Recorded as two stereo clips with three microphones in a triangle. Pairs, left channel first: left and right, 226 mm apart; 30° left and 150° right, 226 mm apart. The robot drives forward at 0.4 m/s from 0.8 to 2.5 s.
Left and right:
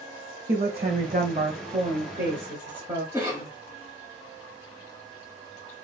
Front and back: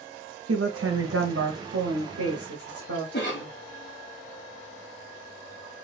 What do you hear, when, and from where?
0.5 s a woman speaking: 145° right, 0.7 m; by 3.0 s 160° right, 1.3 m
3.1 s a cough: 15° right, 3 m